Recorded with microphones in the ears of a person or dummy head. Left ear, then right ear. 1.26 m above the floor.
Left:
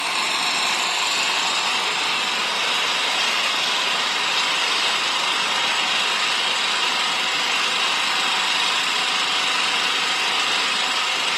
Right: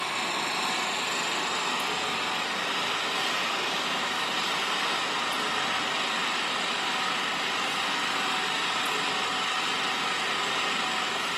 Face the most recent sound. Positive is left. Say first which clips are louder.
# left 7 dB
turn(degrees=75)  # may be behind; listen again after turning